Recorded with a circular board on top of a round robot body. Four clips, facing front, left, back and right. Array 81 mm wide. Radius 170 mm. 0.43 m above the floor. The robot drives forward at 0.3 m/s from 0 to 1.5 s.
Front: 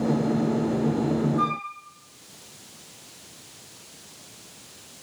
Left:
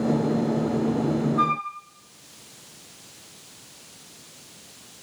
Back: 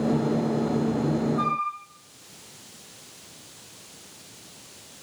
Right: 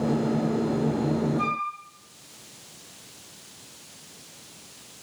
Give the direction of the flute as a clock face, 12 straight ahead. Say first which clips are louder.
Left 4 dB, even; 9 o'clock.